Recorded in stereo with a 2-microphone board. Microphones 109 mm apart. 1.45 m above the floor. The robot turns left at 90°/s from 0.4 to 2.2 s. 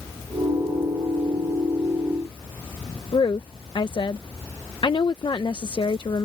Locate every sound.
3.1 s a woman speaking: 45° left (ahead or behind)